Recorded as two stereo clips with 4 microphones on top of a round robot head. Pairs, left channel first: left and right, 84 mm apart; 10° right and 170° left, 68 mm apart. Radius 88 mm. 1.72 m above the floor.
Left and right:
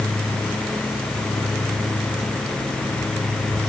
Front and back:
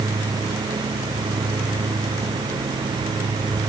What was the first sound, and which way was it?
Only background noise.